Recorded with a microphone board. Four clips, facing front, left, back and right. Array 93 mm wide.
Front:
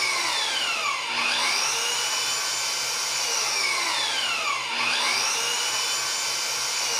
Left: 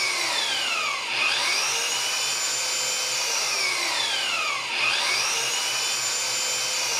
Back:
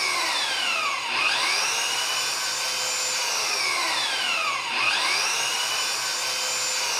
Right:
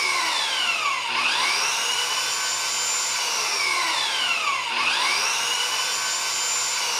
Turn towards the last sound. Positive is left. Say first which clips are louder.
# right 4 dB, back 1 dB
turn(degrees=-115)